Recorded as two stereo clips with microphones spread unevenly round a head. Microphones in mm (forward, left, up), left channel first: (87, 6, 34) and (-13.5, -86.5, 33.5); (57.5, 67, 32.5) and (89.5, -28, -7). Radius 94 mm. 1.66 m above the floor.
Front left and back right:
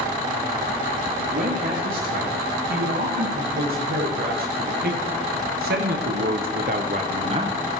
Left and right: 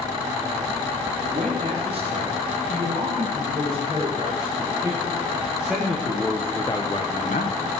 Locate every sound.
1.3 s a man speaking: 125° right, 4 m; by 7.6 s 155° left, 1.2 m